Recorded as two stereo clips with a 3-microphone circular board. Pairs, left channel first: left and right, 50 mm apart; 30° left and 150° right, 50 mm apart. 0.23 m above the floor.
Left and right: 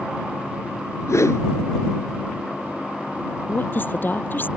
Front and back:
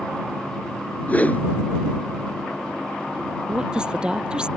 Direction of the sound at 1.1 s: 90° left.